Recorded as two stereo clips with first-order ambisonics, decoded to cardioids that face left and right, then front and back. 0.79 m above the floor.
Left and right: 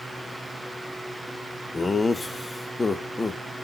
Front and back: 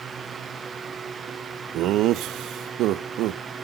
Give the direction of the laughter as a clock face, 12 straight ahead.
6 o'clock.